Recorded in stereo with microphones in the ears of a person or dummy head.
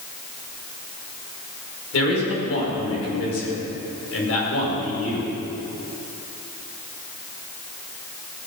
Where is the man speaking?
80° left, 5.5 m.